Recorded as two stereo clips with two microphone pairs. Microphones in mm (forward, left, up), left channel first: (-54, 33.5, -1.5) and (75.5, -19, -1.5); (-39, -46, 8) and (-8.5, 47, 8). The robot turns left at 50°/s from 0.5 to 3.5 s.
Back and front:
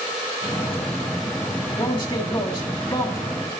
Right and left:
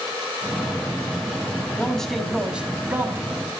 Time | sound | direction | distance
1.8 | a man speaking | 175° right | 1.7 m